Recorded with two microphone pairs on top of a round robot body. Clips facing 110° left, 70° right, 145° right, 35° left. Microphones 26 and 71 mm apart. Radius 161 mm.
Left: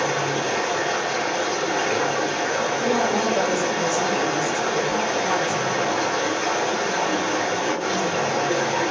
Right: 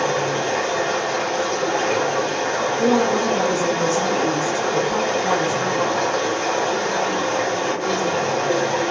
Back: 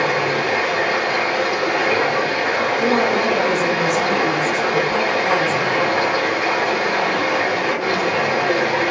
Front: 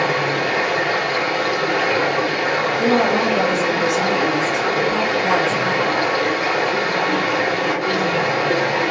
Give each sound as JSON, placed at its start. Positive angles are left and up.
{"t": 0.0, "sound": "running water", "azimuth_deg": -140, "distance_m": 1.5}
{"t": 2.8, "sound": "a woman speaking", "azimuth_deg": -50, "distance_m": 1.6}